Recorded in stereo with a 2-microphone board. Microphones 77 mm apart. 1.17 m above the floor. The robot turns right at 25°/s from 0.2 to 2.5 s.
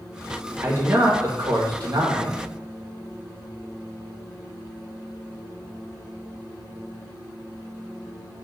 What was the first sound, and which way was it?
A man speaking, 150° right.